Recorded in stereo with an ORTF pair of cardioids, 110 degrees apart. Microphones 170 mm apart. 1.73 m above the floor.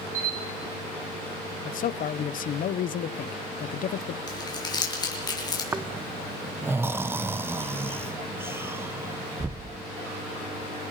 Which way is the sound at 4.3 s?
25° left.